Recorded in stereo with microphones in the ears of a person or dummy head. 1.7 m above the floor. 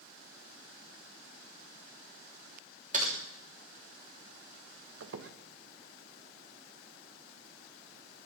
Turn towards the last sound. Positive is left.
turn(degrees=-65)  # may be behind; listen again after turning